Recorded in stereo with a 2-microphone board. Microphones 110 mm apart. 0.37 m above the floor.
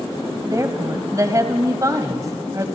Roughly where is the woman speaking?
Right.